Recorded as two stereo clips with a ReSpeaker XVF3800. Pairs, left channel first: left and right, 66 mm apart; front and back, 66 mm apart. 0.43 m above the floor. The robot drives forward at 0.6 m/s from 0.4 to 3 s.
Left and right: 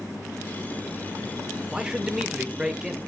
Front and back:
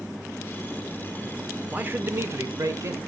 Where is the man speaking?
155° right, 0.8 m; by 3.0 s 170° right, 1.3 m.